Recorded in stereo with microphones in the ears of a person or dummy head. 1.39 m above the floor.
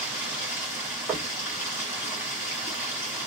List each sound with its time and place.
0.0 s running water: 10° right (ahead or behind), 1.3 m
1.1 s knocking: 15° right (ahead or behind), 1.0 m